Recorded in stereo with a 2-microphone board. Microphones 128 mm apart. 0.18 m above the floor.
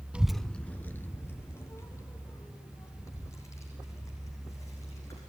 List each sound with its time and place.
0.1 s a child speaking: 10° right (ahead or behind), 0.7 m; by 5.2 s 25° left (ahead or behind), 7.5 m